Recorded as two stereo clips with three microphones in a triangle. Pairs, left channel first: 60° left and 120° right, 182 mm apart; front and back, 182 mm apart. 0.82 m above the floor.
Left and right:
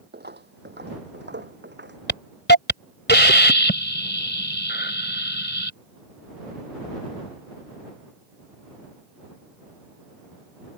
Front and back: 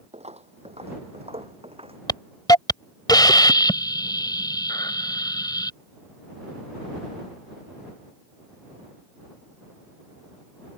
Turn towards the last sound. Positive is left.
turn(degrees=70)